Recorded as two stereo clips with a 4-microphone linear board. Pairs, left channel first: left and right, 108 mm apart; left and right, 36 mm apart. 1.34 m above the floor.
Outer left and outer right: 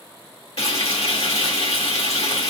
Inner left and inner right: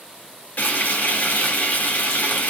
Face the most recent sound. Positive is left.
turn(degrees=80)